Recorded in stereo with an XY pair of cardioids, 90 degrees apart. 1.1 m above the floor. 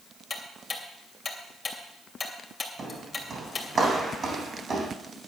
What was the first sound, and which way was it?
Ticking, 40° left.